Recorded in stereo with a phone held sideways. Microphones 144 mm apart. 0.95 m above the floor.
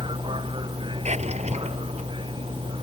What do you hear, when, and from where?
0.0 s a vehicle: 35° right (ahead or behind)
1.1 s a drawer: 50° right (ahead or behind)